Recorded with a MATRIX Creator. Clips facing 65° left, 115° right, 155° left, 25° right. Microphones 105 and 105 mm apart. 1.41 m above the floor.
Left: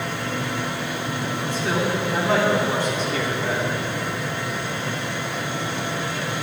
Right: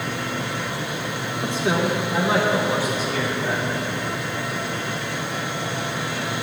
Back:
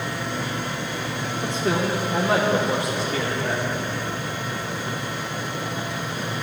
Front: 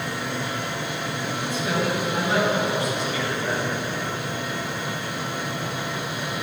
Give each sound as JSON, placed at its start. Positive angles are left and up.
{"t": 1.4, "sound": "a man speaking", "azimuth_deg": 180, "distance_m": 1.8}